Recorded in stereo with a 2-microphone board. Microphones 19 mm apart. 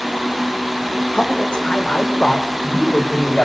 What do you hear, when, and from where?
1.1 s a man speaking: 60° left (ahead or behind), 3 m; by 3.5 s 90° left, 5.5 m